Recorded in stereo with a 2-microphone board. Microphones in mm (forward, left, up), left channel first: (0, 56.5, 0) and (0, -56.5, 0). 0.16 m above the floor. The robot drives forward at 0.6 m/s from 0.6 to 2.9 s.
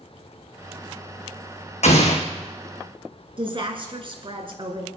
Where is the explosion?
75° left (ahead or behind), 2.5 m; by 2.2 s 80° left, 2.5 m.